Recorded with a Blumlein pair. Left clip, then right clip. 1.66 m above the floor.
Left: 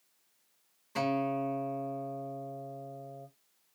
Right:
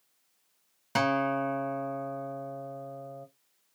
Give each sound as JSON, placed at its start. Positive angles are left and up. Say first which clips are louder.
{"t": 0.9, "sound": "a guitar", "louder": "right 4 dB", "azimuth_deg": -40, "distance_m": 0.7}